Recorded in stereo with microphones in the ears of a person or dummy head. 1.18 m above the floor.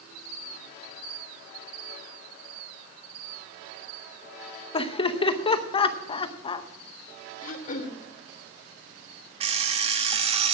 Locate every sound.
4.7 s laughter: 30° left (ahead or behind), 0.8 m
7.4 s throat clearing: 50° left (ahead or behind), 1.4 m
9.4 s an alarm clock: 35° right (ahead or behind), 1.2 m